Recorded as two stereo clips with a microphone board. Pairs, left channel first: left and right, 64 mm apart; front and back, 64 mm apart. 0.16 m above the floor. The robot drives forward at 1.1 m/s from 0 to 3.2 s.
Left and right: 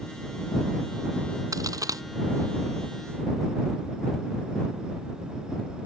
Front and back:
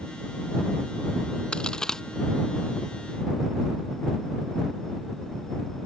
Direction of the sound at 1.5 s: 75° right.